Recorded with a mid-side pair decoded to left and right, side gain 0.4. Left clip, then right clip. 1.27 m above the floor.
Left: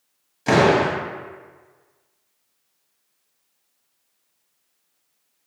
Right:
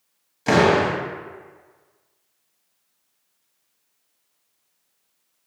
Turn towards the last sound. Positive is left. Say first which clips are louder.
# even
turn(degrees=-10)